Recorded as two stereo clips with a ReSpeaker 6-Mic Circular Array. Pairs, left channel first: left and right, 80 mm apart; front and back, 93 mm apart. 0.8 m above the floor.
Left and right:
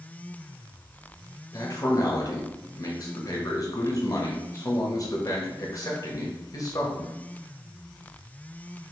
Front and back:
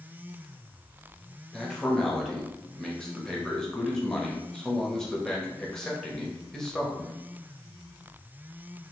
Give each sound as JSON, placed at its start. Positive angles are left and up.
{"t": 1.5, "sound": "a man speaking", "azimuth_deg": 80, "distance_m": 0.8}